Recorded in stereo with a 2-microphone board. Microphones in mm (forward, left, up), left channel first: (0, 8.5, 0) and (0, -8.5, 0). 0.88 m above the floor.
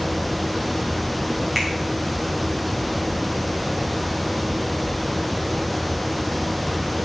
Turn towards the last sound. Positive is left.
turn(degrees=-20)  # may be behind; listen again after turning